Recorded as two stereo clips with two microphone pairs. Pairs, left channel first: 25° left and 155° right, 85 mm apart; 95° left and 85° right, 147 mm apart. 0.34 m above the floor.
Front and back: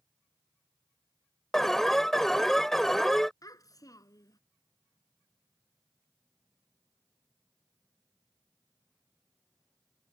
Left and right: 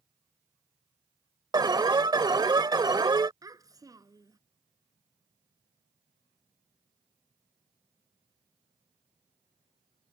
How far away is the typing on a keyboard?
I don't hear typing on a keyboard.